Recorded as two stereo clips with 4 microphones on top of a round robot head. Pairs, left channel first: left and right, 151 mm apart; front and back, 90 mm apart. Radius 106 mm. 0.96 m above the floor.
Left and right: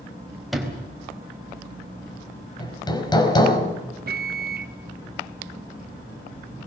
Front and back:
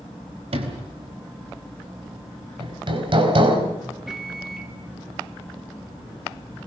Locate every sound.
0.5 s a sliding door: straight behind, 3.5 m
2.6 s hammering: 155° left, 4 m
4.1 s a microwave: 95° right, 1.1 m